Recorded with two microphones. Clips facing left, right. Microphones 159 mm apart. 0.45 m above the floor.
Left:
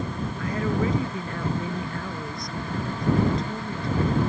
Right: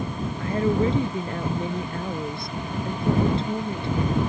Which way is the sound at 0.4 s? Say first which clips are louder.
Right 4 dB; 30° right (ahead or behind).